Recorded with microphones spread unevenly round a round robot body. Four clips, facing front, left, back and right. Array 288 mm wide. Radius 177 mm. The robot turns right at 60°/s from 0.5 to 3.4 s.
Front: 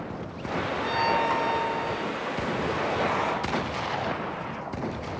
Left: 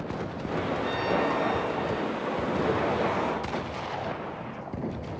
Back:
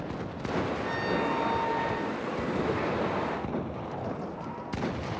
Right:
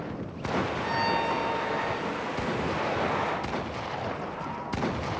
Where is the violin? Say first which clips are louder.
Left 2 dB, front 5 dB; 105° left, 4.5 m; by 2.1 s 175° right, 4.5 m.